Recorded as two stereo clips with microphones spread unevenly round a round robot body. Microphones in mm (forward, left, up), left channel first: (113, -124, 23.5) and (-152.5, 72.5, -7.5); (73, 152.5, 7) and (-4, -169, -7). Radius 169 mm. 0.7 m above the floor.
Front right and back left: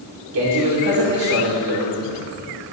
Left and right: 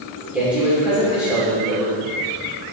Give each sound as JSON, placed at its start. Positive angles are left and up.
{"t": 0.3, "sound": "a man speaking", "azimuth_deg": 170, "distance_m": 2.5}